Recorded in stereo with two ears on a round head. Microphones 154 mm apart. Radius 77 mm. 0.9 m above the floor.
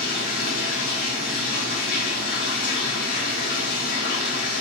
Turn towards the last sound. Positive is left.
turn(degrees=55)  # may be behind; listen again after turning